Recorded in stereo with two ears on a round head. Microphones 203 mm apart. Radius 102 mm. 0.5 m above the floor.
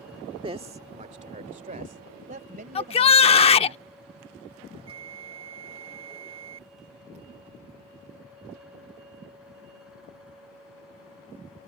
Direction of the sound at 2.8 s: 25° left (ahead or behind).